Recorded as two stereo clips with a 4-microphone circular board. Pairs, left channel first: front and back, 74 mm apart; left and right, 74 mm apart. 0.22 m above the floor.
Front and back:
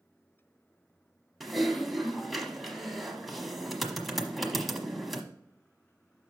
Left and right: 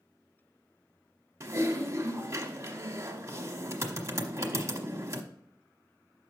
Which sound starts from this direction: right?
Typing on a keyboard, at 1.4 s.